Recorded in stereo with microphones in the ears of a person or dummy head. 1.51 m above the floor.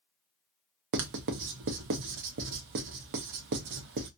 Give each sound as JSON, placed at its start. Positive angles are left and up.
{"t": 0.9, "sound": "writing", "side_deg": -60, "distance_m": 0.6}